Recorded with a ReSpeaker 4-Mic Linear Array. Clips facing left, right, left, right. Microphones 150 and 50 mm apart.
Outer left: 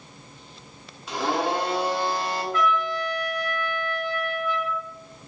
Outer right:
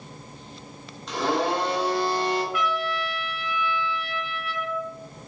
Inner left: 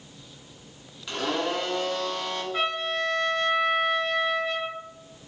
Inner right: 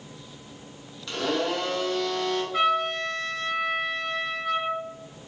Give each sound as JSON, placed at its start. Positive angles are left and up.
{"t": 1.1, "sound": "a blender", "side_deg": 5, "distance_m": 1.2}
{"t": 2.5, "sound": "a trumpet", "side_deg": -5, "distance_m": 1.5}